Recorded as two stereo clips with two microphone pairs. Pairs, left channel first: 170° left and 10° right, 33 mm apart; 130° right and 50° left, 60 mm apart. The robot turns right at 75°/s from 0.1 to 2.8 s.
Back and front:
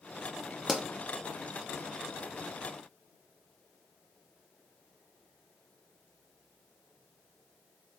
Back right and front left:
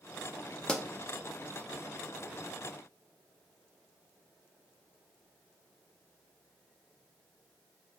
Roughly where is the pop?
Right.